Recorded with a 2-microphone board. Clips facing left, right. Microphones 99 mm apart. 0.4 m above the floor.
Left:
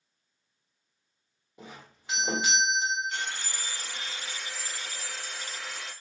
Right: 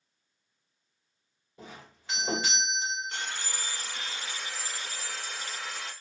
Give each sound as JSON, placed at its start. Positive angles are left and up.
{"t": 1.6, "sound": "a doorbell", "side_deg": 15, "distance_m": 1.3}
{"t": 3.1, "sound": "sawing", "side_deg": -40, "distance_m": 0.9}